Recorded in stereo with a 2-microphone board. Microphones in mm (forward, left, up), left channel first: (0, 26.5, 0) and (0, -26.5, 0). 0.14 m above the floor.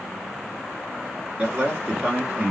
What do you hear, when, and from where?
1.4 s a man speaking: 20° right (ahead or behind), 1.6 m